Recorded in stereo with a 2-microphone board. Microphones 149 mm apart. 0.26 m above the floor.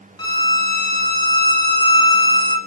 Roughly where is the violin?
Left.